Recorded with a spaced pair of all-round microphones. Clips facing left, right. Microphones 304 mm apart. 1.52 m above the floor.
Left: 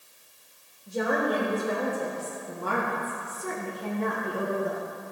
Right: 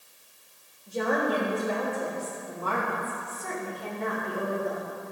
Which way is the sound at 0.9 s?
10° left (ahead or behind).